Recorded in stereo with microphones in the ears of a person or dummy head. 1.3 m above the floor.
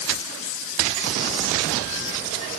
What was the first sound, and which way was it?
Only background noise.